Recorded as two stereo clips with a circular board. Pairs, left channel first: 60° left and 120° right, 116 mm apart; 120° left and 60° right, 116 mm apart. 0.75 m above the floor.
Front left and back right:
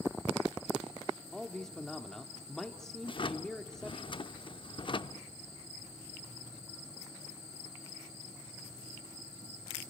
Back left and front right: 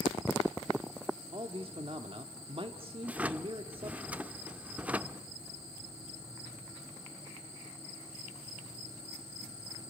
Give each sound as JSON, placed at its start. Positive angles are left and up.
{"t": 1.3, "sound": "a man speaking", "azimuth_deg": -25, "distance_m": 1.4}
{"t": 3.0, "sound": "a drawer", "azimuth_deg": 20, "distance_m": 0.6}